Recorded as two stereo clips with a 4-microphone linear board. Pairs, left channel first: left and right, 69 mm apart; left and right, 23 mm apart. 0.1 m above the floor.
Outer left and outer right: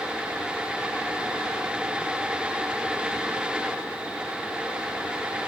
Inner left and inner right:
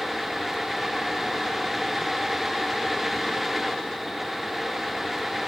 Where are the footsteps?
I don't hear footsteps.